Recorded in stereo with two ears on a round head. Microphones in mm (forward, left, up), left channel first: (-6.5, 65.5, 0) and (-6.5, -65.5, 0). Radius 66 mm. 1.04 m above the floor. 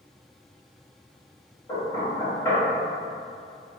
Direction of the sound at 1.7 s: 25° left (ahead or behind).